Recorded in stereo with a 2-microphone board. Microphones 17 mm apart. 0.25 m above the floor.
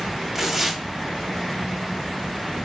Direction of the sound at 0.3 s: 10° right (ahead or behind).